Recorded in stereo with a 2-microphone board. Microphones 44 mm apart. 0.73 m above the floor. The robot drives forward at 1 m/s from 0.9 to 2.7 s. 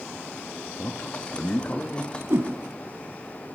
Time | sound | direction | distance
0.8 | a man speaking | 55° left (ahead or behind) | 0.7 m
2.3 | a whoosh | 65° right (ahead or behind) | 1.1 m